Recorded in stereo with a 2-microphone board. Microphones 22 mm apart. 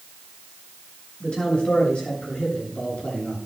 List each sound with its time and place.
1.2 s a man speaking: 40° left (ahead or behind), 7.5 m; by 3.4 s 55° left (ahead or behind), 8.5 m